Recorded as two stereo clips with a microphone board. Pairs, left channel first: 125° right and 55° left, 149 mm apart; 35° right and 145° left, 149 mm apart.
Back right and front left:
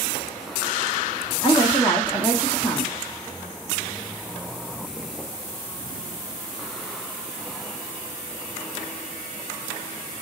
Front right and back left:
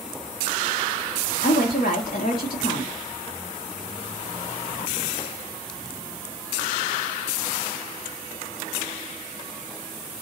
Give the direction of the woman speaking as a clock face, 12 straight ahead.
2 o'clock.